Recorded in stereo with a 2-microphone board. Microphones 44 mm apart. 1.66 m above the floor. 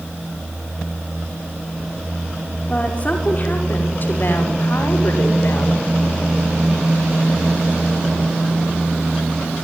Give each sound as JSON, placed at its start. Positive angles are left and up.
{"t": 2.7, "sound": "a woman speaking", "side_deg": 20, "distance_m": 5.0}